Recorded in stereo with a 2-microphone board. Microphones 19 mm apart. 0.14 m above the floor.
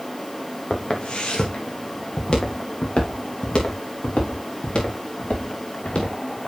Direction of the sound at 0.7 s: 55° left (ahead or behind).